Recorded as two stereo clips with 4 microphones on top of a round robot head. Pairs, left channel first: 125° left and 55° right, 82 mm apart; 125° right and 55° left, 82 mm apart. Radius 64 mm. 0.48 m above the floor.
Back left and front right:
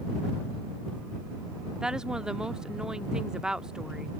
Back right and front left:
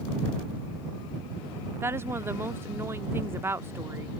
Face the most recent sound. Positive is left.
turn(degrees=20)